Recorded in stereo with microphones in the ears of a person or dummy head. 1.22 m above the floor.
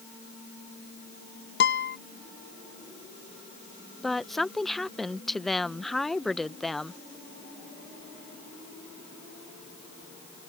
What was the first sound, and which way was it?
A guitar, 70° left (ahead or behind).